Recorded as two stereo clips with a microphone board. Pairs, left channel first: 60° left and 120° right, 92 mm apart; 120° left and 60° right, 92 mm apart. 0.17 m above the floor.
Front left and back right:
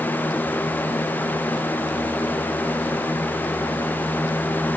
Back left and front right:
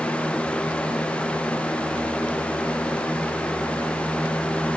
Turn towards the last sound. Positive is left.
No sound to turn to.